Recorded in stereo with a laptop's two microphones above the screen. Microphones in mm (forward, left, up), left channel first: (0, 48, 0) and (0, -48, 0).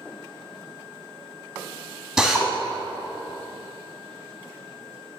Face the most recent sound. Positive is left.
turn(degrees=-5)  # may be behind; listen again after turning